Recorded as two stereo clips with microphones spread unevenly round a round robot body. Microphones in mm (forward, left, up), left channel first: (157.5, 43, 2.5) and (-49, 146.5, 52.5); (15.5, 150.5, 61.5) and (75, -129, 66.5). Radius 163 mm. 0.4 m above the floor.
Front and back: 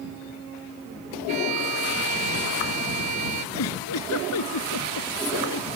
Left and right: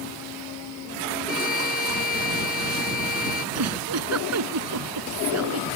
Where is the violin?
165° left.